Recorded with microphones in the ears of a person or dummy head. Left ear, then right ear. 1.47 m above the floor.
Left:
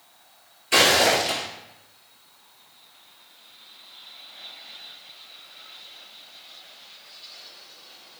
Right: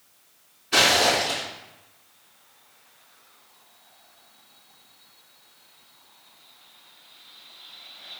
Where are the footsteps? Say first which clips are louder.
Left 1 dB; 35° left (ahead or behind), 1.7 m.